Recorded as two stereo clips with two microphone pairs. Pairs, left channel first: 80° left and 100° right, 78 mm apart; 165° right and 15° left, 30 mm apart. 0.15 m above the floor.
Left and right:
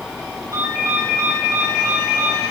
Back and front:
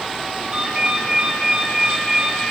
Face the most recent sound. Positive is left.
turn(degrees=-50)